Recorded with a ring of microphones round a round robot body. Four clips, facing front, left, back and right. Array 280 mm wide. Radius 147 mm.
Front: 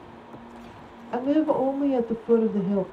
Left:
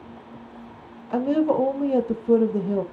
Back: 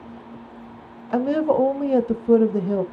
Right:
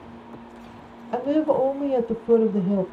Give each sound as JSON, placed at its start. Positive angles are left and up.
{"t": 1.1, "sound": "a woman speaking", "azimuth_deg": -175, "distance_m": 0.9}